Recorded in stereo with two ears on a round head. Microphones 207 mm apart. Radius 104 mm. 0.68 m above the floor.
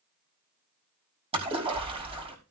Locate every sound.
1.3 s a splash: 25° right (ahead or behind), 5.5 m